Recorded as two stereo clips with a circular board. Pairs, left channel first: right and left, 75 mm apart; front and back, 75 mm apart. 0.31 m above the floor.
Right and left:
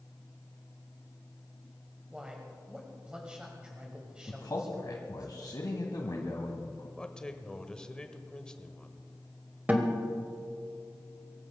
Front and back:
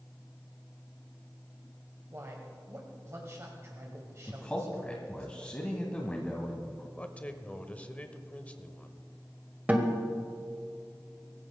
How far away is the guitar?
About 1.7 m.